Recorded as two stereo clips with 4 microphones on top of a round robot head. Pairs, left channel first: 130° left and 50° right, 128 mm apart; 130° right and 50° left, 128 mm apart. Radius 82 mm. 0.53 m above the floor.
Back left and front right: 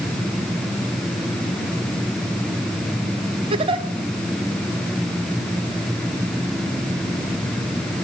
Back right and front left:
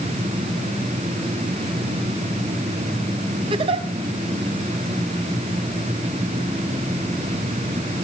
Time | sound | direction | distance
3.5 | a giggle | straight ahead | 1.3 m